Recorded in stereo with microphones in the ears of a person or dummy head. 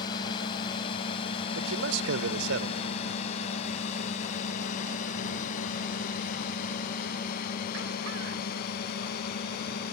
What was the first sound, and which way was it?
A drone, 25° left (ahead or behind).